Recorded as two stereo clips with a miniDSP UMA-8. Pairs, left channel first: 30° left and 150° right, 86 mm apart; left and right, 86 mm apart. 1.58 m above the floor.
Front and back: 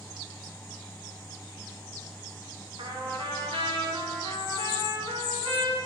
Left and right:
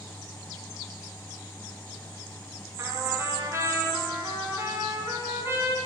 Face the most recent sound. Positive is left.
turn(degrees=-145)